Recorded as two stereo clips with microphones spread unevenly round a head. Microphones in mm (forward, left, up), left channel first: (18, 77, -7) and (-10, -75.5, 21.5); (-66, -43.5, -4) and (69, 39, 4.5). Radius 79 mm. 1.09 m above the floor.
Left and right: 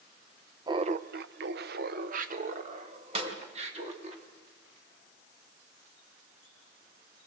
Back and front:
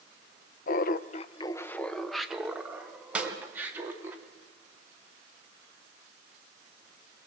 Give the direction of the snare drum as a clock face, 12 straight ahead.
2 o'clock.